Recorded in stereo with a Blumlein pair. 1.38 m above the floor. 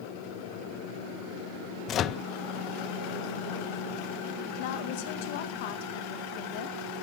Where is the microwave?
30° left, 0.5 m.